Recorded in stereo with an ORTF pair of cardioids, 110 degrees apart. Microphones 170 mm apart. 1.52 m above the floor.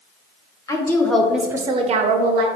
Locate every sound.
0.7 s a woman speaking: 20° left, 0.8 m; by 2.5 s 75° right, 0.6 m